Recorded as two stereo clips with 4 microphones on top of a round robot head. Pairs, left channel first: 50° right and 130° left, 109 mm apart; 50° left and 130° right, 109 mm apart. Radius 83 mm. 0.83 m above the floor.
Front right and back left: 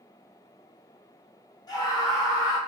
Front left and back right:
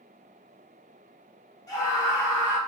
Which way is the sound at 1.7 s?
5° right.